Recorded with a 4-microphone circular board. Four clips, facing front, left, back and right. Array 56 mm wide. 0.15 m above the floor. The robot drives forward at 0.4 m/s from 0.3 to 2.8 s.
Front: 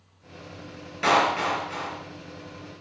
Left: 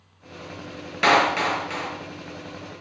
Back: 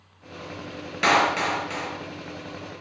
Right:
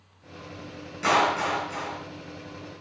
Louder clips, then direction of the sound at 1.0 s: Left 4 dB, back 1 dB; 115° left.